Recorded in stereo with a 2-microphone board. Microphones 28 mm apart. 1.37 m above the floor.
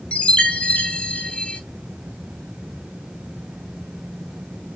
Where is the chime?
50° left (ahead or behind), 0.6 m.